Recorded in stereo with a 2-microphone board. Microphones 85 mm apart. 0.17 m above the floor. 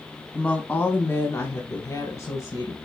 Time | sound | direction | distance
0.3 | a woman speaking | 15° left (ahead or behind) | 1.1 m